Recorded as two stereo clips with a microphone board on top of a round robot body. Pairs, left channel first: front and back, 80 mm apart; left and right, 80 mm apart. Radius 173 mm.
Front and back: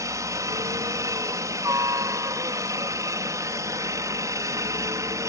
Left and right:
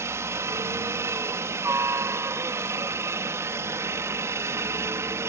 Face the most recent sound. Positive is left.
turn(degrees=-140)